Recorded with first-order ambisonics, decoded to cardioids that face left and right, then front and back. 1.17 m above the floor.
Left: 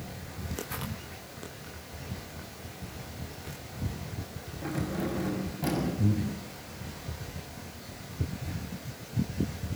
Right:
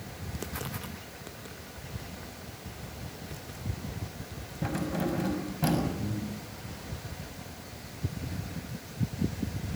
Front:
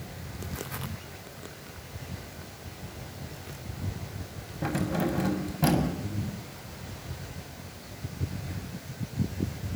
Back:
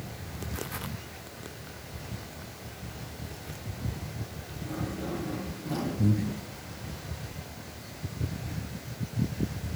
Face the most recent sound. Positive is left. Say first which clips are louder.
# left 4 dB, back 7 dB
turn(degrees=145)